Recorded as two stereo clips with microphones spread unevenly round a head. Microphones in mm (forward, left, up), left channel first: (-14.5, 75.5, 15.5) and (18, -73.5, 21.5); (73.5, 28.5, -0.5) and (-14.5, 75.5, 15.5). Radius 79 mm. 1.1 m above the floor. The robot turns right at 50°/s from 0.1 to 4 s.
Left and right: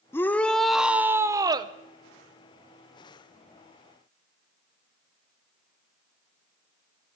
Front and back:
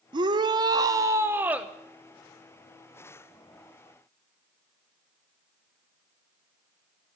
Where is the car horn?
I don't hear a car horn.